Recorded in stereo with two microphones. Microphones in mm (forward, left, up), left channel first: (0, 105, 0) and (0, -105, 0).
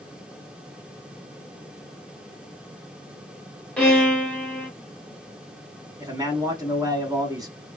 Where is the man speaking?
20° right (ahead or behind), 1.1 m.